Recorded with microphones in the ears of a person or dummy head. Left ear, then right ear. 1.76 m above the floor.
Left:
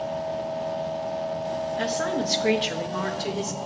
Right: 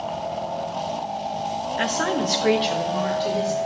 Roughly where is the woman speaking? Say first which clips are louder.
Right 4 dB; right.